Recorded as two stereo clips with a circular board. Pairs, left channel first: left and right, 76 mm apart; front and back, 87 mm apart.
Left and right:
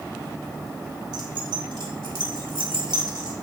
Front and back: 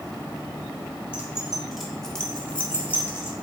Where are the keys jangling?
105° right, 1.4 m; by 3.3 s 65° right, 1.8 m.